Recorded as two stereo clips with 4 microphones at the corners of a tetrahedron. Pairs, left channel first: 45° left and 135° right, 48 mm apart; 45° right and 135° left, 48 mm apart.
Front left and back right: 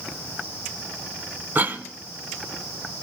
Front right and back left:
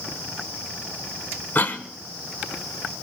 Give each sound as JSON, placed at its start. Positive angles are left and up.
{"t": 1.6, "sound": "a cough", "azimuth_deg": -90, "distance_m": 1.3}